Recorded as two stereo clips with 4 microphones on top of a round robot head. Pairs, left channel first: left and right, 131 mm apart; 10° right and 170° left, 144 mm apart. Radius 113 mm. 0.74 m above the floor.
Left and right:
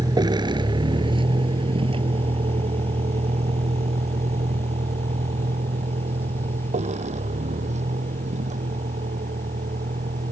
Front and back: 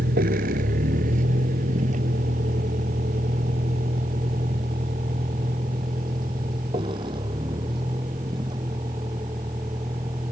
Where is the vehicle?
150° right; by 10.3 s 120° right.